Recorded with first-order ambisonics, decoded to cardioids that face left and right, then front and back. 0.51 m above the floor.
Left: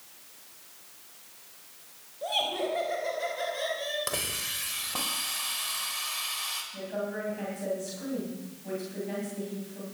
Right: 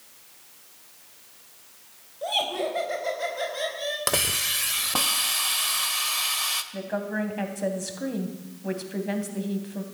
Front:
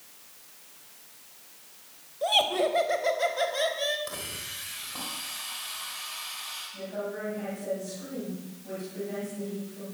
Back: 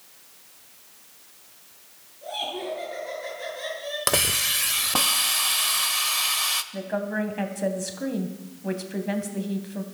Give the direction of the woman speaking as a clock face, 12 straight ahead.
5 o'clock.